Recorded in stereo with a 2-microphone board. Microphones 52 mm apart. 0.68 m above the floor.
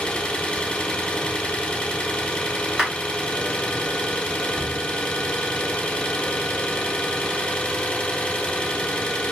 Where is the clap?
20° right (ahead or behind), 1.6 m.